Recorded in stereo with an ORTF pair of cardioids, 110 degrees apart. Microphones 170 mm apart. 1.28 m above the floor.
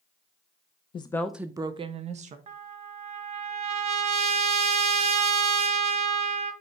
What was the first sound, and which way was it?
A woman speaking, 30° left.